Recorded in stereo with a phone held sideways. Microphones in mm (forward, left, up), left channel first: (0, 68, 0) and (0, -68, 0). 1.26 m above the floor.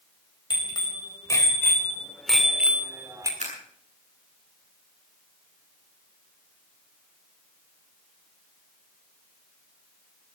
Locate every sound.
0.5 s a bicycle bell: 35° left (ahead or behind), 4.5 m; by 3.3 s 30° right (ahead or behind), 2.5 m
3.4 s scissors: 60° right (ahead or behind), 8 m